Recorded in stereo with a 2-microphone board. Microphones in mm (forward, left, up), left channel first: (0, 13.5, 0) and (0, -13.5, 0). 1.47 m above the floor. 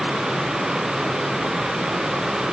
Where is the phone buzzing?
No phone buzzing in this recording.